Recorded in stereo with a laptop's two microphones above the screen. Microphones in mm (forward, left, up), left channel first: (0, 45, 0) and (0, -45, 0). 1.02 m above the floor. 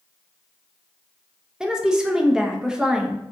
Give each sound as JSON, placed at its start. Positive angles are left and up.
{"t": 1.6, "sound": "a woman speaking", "side_deg": -10, "distance_m": 0.7}